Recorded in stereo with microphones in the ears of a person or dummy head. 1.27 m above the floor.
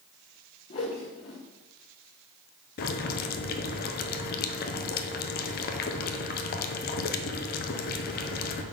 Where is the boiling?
55° left (ahead or behind), 0.8 m.